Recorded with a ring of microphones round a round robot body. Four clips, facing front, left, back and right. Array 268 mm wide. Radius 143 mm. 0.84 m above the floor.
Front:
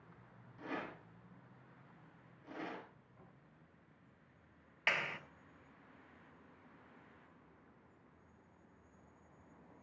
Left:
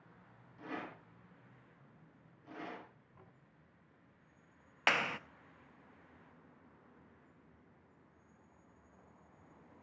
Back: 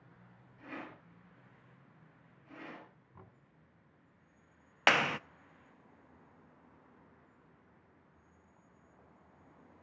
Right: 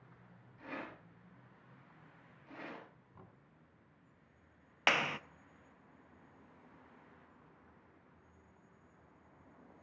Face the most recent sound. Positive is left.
turn(degrees=-175)